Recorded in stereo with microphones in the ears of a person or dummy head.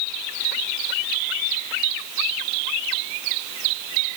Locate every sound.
Only background noise.